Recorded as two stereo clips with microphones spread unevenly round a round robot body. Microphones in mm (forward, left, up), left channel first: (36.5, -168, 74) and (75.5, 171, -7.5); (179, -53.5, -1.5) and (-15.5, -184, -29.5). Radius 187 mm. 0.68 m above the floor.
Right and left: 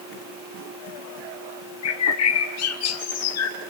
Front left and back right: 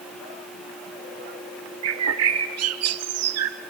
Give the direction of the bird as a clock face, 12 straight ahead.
5 o'clock.